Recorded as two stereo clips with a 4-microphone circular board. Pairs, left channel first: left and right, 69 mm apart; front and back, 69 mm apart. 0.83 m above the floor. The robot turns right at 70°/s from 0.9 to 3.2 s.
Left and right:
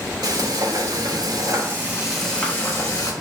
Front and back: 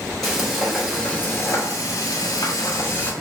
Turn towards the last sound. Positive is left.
turn(degrees=75)